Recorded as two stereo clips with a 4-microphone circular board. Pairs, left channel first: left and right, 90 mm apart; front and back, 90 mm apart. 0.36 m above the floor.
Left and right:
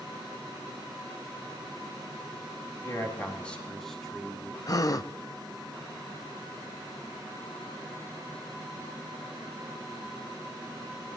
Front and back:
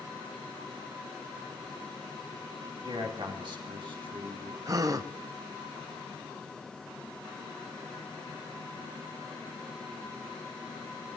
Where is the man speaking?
150° left, 3 m; by 4.6 s 170° right, 4 m.